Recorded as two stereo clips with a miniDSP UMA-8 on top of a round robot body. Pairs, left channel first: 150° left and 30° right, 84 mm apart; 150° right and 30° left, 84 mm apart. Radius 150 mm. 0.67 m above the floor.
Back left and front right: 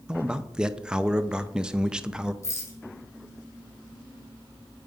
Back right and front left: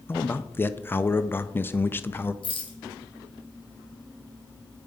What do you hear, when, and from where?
0.1 s a man speaking: 105° right, 0.7 m
2.4 s a rattle: 155° right, 1.9 m